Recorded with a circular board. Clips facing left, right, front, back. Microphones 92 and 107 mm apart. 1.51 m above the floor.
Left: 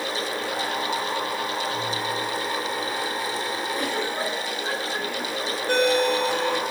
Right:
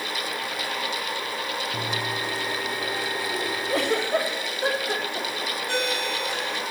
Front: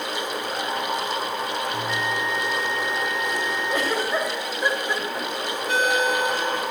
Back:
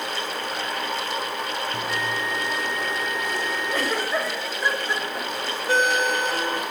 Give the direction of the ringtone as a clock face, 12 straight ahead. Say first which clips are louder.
Left 9 dB, back 1 dB; 8 o'clock.